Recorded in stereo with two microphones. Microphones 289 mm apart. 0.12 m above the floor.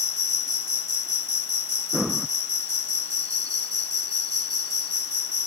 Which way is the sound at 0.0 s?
50° right (ahead or behind).